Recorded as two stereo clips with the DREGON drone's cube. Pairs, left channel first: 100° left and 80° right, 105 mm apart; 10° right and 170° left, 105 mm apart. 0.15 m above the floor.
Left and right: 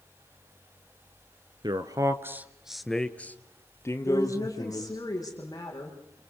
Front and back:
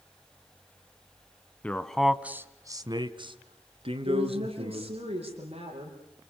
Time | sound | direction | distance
1.6 | a man speaking | 80° right | 1.4 m
4.0 | a woman speaking | 155° left | 7.5 m